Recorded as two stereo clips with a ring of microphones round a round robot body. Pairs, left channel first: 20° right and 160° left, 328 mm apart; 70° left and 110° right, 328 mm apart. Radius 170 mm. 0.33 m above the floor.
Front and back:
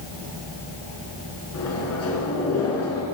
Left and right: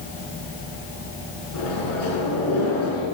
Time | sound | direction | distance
1.5 | a microwave | 25° left | 4 m